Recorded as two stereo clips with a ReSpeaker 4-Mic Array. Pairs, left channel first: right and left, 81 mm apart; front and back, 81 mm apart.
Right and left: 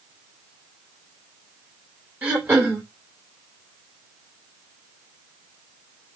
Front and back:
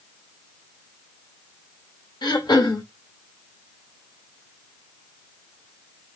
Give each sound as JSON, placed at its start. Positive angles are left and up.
{"t": 2.2, "sound": "throat clearing", "azimuth_deg": 20, "distance_m": 2.0}